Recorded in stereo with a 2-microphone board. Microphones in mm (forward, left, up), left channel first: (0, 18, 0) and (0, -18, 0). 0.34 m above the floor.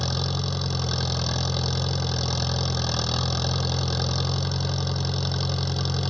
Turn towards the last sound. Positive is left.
turn(degrees=10)  # may be behind; listen again after turning